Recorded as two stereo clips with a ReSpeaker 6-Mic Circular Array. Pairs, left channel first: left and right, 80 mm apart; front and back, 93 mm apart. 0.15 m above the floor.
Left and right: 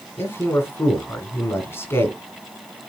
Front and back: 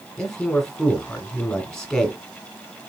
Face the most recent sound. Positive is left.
turn(degrees=80)